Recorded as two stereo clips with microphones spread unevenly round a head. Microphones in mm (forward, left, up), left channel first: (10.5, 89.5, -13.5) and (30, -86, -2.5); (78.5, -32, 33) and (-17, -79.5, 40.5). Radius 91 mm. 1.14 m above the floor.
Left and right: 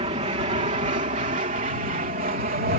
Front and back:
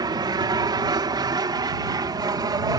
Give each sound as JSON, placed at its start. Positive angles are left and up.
{"t": 0.0, "sound": "an aircraft", "azimuth_deg": -125}